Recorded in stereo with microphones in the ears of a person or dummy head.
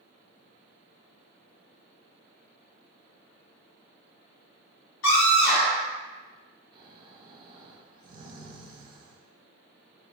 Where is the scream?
70° left (ahead or behind), 1.3 m.